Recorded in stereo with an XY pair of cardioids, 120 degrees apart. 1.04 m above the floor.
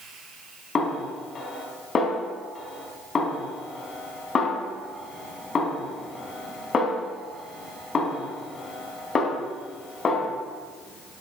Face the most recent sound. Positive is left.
turn(degrees=35)